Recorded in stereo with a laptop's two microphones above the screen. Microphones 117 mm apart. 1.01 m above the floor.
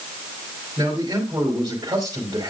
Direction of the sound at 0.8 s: 35° right (ahead or behind).